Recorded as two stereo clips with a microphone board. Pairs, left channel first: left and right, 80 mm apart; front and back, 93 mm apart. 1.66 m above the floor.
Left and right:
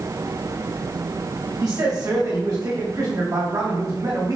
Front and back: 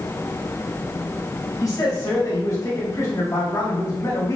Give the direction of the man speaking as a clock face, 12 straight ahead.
2 o'clock.